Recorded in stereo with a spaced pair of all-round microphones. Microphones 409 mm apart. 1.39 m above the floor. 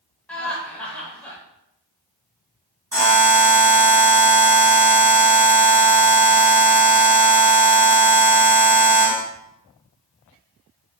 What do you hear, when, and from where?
0.3 s laughter: 5° left (ahead or behind), 0.9 m
2.9 s a buzzer: 55° right (ahead or behind), 2.0 m